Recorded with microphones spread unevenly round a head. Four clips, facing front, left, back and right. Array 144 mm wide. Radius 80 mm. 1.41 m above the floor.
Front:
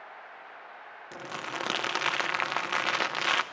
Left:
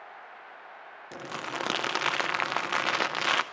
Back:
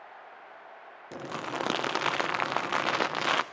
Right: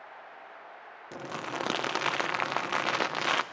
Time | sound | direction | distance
1.1 | crumpling | 165° right | 0.6 m